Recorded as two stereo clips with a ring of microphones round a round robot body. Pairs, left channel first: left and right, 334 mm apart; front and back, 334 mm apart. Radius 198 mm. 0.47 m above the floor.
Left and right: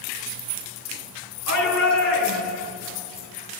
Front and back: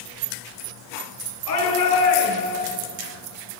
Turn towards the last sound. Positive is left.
turn(degrees=45)